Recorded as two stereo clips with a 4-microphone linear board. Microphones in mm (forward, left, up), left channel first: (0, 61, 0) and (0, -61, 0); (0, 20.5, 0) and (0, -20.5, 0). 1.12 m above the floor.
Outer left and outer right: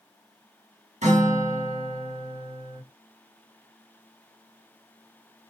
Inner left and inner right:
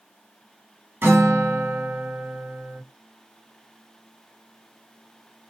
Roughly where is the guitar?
Right.